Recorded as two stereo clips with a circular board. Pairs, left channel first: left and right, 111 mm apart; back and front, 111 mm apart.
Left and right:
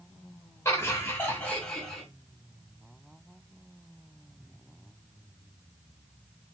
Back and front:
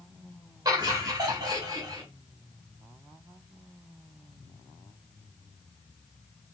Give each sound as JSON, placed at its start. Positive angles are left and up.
{"t": 0.7, "sound": "laughter", "azimuth_deg": 40, "distance_m": 1.9}